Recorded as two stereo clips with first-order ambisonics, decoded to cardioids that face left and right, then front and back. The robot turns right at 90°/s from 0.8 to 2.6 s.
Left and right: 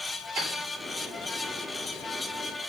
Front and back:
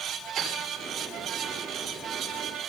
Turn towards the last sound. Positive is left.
turn(degrees=40)